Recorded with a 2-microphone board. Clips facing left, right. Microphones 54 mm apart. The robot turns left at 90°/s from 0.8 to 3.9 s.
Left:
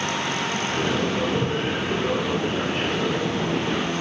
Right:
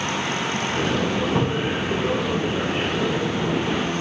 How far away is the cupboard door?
About 6 m.